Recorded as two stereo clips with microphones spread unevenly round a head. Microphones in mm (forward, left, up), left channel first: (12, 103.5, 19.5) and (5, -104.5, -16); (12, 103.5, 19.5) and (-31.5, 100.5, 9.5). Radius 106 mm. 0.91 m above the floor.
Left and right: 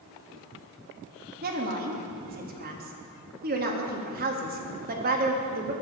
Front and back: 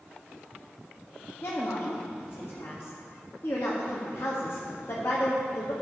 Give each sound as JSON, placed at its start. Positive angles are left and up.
{"t": 1.4, "sound": "a woman speaking", "azimuth_deg": -60, "distance_m": 1.6}